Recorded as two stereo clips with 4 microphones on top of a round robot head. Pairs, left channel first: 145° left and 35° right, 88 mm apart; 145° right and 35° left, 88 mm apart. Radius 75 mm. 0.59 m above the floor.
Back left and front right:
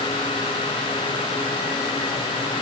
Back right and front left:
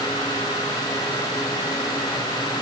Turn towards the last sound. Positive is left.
No sound to turn to.